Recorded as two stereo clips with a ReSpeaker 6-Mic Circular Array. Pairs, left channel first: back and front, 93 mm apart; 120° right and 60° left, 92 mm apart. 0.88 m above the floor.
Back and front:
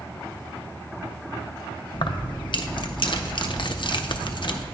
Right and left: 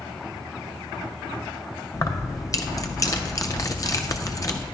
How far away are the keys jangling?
About 0.5 m.